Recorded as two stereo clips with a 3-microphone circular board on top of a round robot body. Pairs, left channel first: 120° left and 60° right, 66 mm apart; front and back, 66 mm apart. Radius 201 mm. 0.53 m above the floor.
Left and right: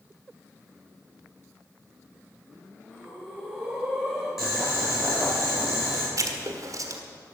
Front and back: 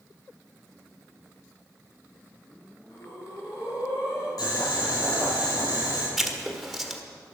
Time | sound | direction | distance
2.9 | breathing | 30° left | 6.5 m
4.4 | boiling | 25° left | 6 m
6.2 | writing | 90° right | 1.7 m